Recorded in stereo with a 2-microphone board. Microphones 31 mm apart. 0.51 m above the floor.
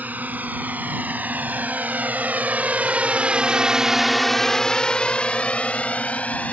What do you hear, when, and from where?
0.0 s a drone: 65° right (ahead or behind); by 6.5 s 50° left (ahead or behind)